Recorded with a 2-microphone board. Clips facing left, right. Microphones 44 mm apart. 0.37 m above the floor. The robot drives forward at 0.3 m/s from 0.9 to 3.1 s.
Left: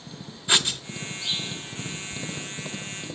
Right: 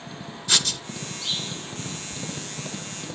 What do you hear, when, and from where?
0.5 s writing: 20° left (ahead or behind), 0.9 m